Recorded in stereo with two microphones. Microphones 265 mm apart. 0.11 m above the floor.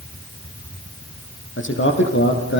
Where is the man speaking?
50° left (ahead or behind), 4.5 m.